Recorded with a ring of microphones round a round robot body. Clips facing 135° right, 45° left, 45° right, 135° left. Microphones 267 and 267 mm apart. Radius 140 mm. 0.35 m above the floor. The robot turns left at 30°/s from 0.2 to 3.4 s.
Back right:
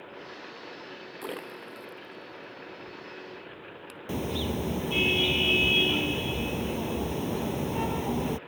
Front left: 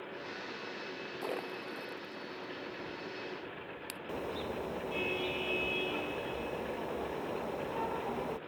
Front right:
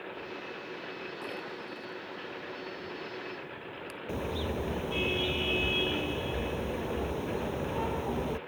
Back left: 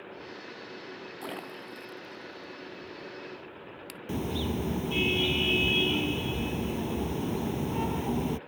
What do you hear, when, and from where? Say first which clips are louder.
1.2 s a splash: back right 1 dB, even; 165° left; by 4.0 s 95° left
4.1 s a car horn: back right 8 dB, back left 3 dB; straight behind